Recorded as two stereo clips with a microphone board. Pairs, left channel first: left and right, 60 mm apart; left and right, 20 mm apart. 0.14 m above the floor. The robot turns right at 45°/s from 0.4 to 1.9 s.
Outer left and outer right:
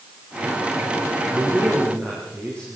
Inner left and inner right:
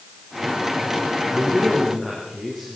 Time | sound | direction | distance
1.3 | a man speaking | 15° right (ahead or behind) | 7.5 m